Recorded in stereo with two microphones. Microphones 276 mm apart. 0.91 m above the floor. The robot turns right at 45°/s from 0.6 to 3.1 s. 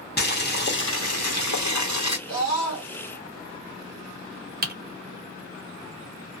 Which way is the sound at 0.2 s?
35° left.